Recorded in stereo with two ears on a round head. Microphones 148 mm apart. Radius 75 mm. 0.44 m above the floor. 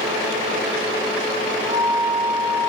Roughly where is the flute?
Right.